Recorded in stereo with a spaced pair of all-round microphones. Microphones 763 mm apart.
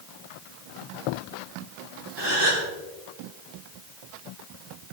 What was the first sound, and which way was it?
A gasp, 30° right (ahead or behind).